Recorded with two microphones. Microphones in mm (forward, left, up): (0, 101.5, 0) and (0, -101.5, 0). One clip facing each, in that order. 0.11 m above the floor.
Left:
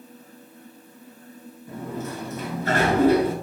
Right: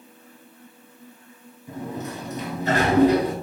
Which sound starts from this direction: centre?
A sliding door, at 1.7 s.